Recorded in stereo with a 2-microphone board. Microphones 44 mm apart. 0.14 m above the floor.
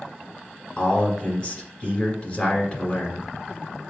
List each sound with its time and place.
0.8 s a man speaking: 25° left (ahead or behind), 1.7 m